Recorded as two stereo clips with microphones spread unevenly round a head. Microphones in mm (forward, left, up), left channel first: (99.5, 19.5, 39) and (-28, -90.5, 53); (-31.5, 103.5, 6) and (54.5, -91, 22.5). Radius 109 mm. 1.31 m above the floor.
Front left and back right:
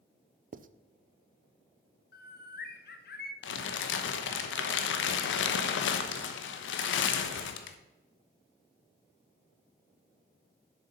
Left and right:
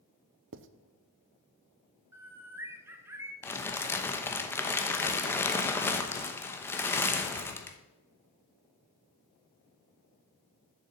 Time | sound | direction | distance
0.5 | writing | 100° right | 0.5 m
2.1 | a bird | 15° left | 1.0 m
3.4 | crumpling | 35° left | 0.9 m